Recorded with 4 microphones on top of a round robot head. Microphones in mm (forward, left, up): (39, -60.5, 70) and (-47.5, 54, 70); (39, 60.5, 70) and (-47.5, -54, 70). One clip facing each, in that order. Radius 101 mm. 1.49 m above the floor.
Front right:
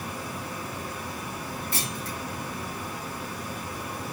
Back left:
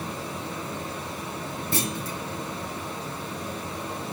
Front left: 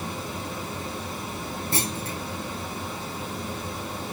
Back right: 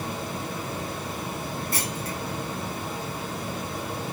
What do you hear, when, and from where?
0.0 s running water: 165° right, 2.5 m
1.7 s a clunk: 120° left, 0.6 m